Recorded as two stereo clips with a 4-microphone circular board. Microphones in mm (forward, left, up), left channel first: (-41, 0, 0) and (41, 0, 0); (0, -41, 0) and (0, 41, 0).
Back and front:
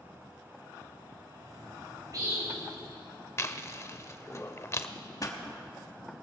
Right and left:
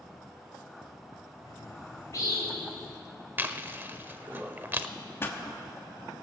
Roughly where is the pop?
Behind right.